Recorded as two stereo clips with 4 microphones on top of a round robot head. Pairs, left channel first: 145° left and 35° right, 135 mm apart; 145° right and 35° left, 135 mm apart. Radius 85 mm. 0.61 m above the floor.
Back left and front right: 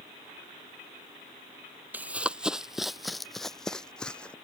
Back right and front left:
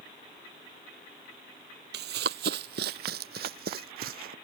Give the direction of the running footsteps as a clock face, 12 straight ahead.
11 o'clock.